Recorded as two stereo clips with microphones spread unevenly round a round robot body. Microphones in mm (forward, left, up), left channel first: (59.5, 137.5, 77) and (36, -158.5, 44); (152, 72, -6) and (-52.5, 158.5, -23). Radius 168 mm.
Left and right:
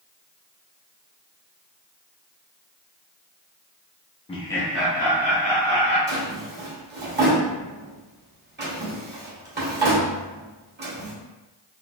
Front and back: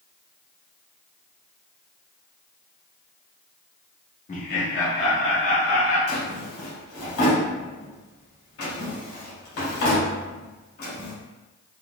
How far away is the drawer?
About 2.0 m.